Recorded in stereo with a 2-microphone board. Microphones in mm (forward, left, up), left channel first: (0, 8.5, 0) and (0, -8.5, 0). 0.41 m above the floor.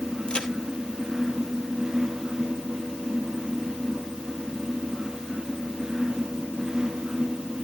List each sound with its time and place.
0.3 s a crack: 65° left (ahead or behind), 1.8 m